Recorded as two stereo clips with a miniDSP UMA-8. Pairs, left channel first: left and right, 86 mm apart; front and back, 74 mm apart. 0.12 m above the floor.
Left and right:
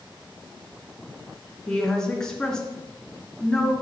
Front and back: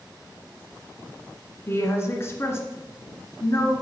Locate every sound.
1.7 s a woman speaking: 10° left, 1.7 m